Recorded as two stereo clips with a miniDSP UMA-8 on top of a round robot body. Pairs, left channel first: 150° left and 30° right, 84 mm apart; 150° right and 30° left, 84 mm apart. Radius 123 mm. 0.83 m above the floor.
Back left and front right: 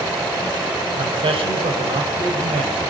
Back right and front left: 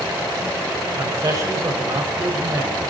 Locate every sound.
0.9 s a man speaking: 25° right, 5 m